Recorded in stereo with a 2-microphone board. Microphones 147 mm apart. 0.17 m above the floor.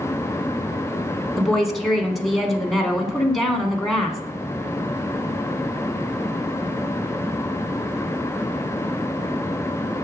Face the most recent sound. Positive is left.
turn(degrees=0)  # may be behind; listen again after turning